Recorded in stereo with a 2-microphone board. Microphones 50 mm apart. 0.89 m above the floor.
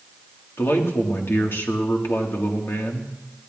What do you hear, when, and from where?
0.6 s a man speaking: 50° left (ahead or behind), 1.8 m